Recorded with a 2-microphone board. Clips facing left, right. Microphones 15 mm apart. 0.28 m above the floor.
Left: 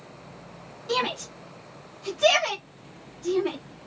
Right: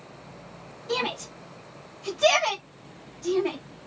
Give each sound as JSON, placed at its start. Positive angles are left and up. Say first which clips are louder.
{"t": 0.9, "sound": "a shout", "louder": "left 2 dB", "side_deg": 25, "distance_m": 1.7}